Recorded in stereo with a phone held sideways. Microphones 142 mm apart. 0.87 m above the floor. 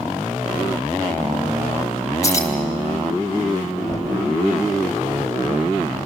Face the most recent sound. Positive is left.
turn(degrees=25)  # may be behind; listen again after turning